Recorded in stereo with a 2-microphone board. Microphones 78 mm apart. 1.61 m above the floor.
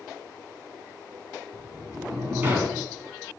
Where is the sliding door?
30° right (ahead or behind), 2.5 m.